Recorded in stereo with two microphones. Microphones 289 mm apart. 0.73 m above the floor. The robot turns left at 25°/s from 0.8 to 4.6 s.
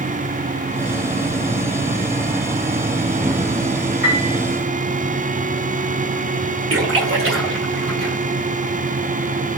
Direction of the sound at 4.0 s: 50° right (ahead or behind).